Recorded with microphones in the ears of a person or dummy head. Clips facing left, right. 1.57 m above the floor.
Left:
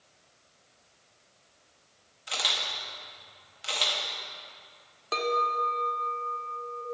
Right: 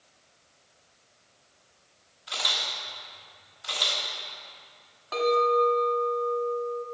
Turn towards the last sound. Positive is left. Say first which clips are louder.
# right 7 dB
turn(degrees=45)  # may be behind; listen again after turning